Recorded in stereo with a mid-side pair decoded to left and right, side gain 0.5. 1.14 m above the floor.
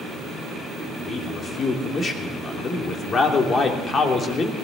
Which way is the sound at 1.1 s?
40° left.